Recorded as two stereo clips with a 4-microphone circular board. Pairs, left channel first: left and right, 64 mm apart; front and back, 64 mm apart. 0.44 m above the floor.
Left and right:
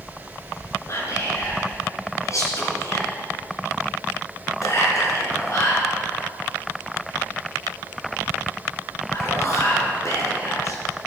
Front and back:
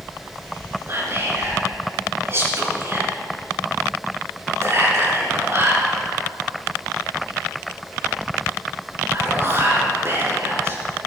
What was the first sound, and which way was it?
Whispering, 130° left.